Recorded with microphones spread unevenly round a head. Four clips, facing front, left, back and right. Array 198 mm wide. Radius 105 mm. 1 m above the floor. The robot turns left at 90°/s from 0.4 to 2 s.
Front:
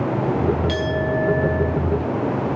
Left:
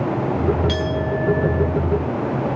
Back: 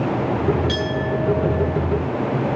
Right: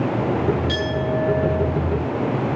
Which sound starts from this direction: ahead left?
A clink, at 0.7 s.